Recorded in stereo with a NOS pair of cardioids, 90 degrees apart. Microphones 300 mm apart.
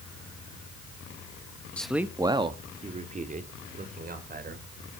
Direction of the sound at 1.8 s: 5° left.